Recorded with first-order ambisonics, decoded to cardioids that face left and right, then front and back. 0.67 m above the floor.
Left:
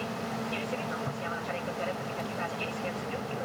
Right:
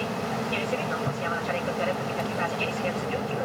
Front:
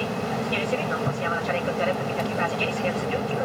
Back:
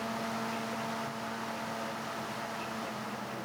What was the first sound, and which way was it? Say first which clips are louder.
An aircraft: right 5 dB, front 8 dB; 25° right.